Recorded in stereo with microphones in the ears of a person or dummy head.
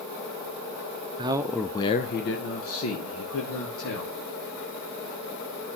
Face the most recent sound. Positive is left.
turn(degrees=75)  # may be behind; listen again after turning